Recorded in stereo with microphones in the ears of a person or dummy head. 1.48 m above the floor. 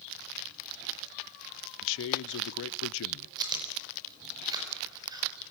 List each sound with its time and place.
1.8 s a man speaking: 70° left (ahead or behind), 0.6 m
3.4 s chewing: 20° right (ahead or behind), 5 m